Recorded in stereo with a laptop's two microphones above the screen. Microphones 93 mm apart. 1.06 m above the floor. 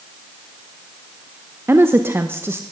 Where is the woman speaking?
25° right (ahead or behind), 0.7 m.